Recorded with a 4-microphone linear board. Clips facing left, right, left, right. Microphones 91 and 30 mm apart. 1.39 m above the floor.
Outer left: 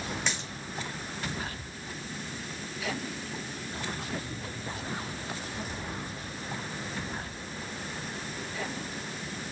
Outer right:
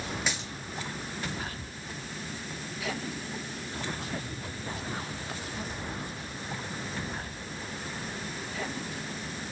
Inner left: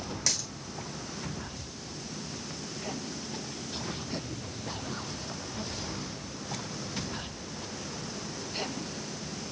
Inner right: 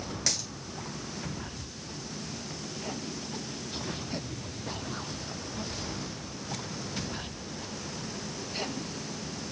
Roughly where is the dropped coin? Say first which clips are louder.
Even, even; centre.